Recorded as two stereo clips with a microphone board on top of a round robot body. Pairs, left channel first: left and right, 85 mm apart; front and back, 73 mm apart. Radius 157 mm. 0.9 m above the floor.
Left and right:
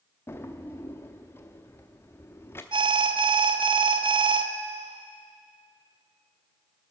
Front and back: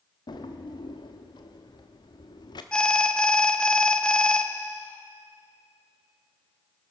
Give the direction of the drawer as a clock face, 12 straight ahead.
11 o'clock.